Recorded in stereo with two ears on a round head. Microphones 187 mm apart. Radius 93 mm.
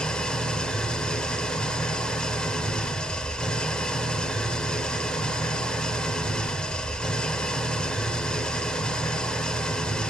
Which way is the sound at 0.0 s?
5° left (ahead or behind).